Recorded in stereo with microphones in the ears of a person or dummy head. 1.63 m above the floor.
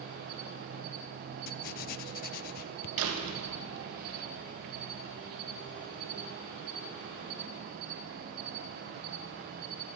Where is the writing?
50° left (ahead or behind), 0.5 m.